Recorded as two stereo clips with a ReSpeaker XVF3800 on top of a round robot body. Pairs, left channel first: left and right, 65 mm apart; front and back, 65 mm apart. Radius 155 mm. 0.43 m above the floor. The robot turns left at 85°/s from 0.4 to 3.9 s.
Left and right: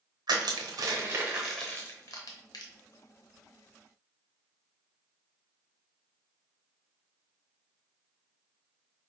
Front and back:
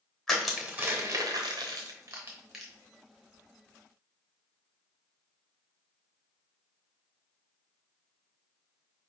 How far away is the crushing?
About 0.8 m.